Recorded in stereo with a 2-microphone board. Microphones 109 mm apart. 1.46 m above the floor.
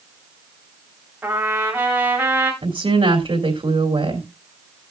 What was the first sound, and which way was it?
A trumpet, 20° right (ahead or behind).